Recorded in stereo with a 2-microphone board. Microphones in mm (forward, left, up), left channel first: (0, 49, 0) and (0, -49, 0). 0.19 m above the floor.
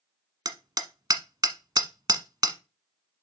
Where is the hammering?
45° right (ahead or behind), 1.1 m.